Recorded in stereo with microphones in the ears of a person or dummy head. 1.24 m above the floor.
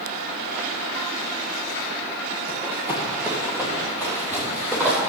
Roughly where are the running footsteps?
Centre.